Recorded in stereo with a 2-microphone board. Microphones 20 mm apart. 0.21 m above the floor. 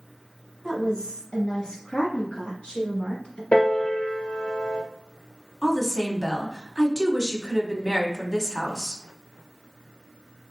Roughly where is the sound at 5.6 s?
Right.